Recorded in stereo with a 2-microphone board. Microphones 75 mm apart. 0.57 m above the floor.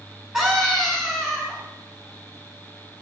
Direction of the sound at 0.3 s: 10° right (ahead or behind).